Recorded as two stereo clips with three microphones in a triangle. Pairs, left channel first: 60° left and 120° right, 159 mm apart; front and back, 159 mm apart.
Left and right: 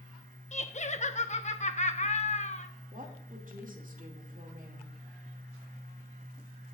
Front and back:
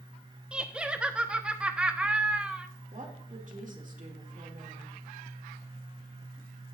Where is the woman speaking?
150° right, 2.5 m.